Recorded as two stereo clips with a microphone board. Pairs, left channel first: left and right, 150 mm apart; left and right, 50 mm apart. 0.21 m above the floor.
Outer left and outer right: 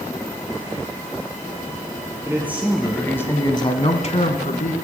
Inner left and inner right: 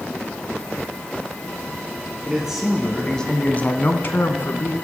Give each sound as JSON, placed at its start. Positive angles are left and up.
{"t": 2.2, "sound": "a man speaking", "side_deg": -15, "distance_m": 1.7}